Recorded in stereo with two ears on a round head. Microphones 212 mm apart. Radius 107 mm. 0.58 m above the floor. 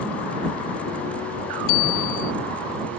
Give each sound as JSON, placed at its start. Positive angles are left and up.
{"t": 1.7, "sound": "a bicycle bell", "side_deg": 55}